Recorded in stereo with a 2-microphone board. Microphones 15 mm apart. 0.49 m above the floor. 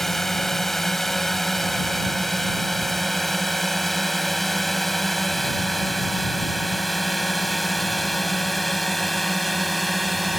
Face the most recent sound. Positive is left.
turn(degrees=0)  # may be behind; listen again after turning